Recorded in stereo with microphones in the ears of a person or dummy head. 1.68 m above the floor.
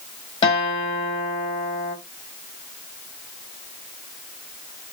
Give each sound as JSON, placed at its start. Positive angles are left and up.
{"t": 0.4, "sound": "a guitar", "side_deg": 30, "distance_m": 2.5}